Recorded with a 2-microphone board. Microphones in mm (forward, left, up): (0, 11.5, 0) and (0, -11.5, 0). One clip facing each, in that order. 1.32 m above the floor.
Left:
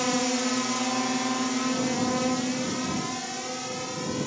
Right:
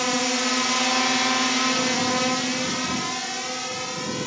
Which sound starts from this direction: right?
A drone, at 0.0 s.